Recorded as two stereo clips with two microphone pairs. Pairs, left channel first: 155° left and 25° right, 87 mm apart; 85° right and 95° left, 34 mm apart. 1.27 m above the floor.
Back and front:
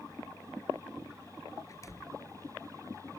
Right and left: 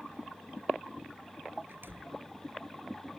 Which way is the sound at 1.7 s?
105° left.